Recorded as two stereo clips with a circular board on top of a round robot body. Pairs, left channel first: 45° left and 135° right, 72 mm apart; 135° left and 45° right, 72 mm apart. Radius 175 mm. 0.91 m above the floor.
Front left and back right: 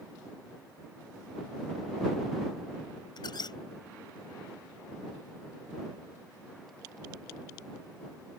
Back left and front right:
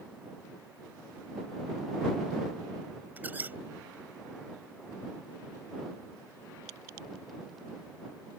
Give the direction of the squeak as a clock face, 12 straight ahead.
11 o'clock.